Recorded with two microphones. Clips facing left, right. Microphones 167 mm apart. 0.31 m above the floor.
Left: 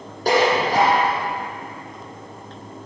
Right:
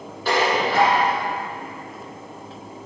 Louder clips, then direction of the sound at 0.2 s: Left 3 dB; 40° left (ahead or behind).